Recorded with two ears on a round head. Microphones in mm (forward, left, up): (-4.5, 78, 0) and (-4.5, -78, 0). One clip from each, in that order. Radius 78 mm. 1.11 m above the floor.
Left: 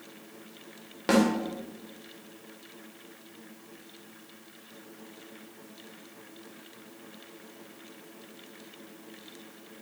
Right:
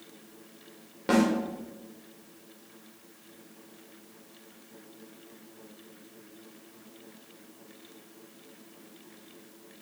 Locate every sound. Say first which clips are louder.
1.1 s a snare drum: left 1 dB; 25° left (ahead or behind), 2 m